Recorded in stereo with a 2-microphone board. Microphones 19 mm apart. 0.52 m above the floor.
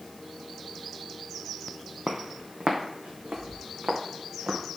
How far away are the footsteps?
About 1.1 m.